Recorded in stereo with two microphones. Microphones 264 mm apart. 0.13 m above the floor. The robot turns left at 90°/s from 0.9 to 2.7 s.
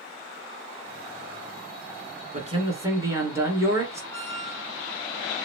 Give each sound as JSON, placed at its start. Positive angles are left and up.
{"t": 2.3, "sound": "a man speaking", "azimuth_deg": -130, "distance_m": 1.5}
{"t": 4.1, "sound": "a squeak", "side_deg": 10, "distance_m": 0.8}